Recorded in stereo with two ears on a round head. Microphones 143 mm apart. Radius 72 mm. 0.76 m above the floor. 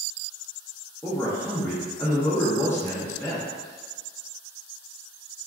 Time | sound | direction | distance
1.0 | a man speaking | 15° left (ahead or behind) | 0.5 m